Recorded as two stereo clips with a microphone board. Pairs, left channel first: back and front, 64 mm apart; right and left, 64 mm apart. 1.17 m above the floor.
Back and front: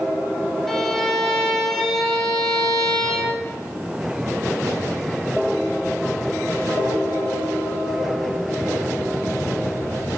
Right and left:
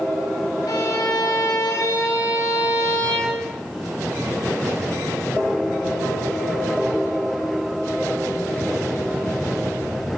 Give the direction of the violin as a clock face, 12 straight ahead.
3 o'clock.